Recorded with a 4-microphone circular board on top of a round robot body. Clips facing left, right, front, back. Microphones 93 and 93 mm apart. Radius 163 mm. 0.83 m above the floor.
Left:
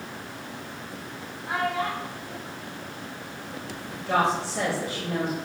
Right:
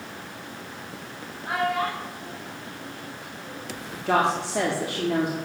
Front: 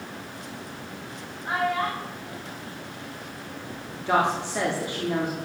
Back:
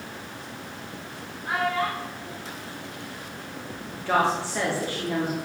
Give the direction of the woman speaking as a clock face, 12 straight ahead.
2 o'clock.